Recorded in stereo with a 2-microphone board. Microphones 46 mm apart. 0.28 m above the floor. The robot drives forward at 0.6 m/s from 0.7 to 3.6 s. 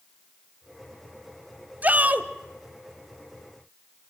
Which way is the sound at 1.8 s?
35° right (ahead or behind).